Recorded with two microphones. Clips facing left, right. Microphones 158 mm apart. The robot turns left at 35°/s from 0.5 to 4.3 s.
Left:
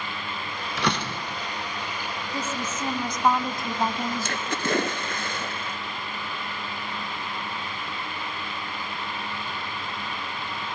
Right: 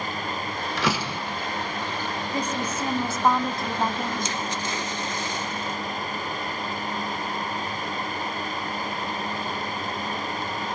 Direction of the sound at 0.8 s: Centre (ahead or behind).